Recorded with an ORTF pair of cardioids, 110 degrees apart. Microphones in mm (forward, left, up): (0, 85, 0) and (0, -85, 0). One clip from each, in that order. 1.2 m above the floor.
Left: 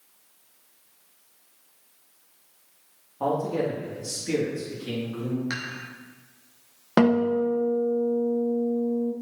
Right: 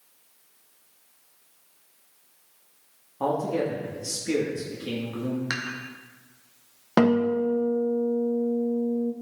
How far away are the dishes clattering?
About 1.6 m.